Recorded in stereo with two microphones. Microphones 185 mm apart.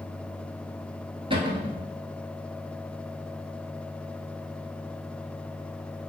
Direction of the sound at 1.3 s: 30° right (ahead or behind).